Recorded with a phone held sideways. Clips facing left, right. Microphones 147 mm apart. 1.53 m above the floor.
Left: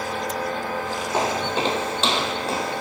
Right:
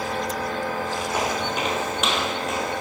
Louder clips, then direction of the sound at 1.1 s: Left 4 dB; 30° left (ahead or behind).